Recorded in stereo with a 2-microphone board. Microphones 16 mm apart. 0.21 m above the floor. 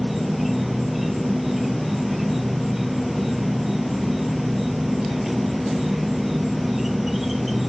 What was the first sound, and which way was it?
An insect, centre (ahead or behind).